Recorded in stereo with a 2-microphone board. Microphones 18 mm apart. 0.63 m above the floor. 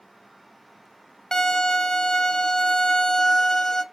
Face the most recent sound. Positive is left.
turn(degrees=25)  # may be behind; listen again after turning